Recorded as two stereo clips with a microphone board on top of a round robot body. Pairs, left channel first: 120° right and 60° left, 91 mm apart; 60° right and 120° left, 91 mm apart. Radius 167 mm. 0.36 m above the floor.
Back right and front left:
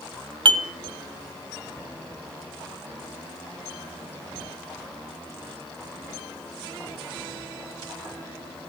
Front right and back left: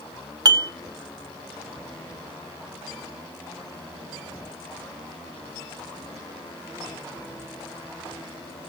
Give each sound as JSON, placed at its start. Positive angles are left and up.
{"t": 0.5, "sound": "dishes clattering", "azimuth_deg": 75, "distance_m": 1.3}